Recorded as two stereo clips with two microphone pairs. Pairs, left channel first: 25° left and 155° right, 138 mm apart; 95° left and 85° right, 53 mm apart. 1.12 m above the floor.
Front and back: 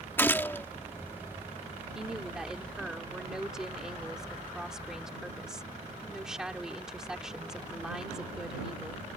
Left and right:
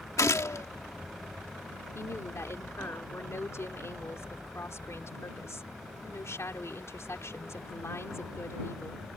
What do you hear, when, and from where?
0.2 s a gunshot: 100° left
1.9 s a woman speaking: 120° left